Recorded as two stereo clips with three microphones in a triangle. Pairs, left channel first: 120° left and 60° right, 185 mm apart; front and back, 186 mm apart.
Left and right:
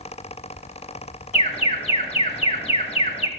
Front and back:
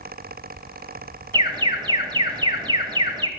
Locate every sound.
1.3 s an alarm: 135° left, 1.2 m